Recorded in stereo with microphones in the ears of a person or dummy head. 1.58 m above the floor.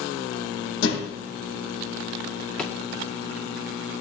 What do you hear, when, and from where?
0.8 s a thud: 65° left (ahead or behind), 5 m
2.6 s a drawer: 5° left (ahead or behind), 2.0 m